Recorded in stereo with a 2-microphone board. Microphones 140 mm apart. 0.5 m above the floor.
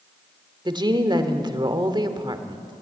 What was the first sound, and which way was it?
A woman speaking, 30° right (ahead or behind).